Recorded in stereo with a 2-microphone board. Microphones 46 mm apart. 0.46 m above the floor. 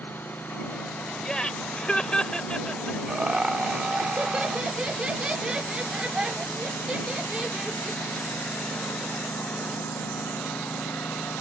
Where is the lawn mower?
45° left (ahead or behind); by 11.4 s 55° left (ahead or behind).